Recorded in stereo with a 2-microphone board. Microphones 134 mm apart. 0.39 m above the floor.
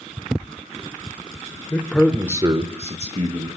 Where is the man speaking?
20° left (ahead or behind), 1.1 m; by 3.5 s 55° right (ahead or behind), 2 m.